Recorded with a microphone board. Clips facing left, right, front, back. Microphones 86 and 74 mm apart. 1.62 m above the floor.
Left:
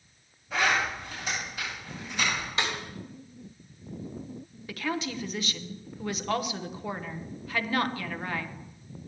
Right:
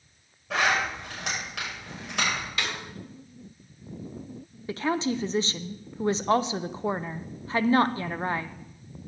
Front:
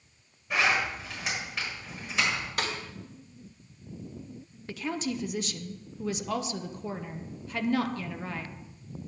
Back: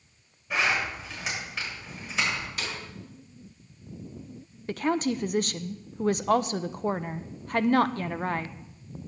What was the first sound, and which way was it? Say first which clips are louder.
A zipper: right 1 dB, even; 90° right.